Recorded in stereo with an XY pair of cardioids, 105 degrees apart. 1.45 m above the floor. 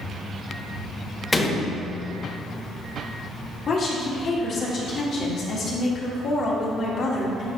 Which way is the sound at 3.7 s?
55° left.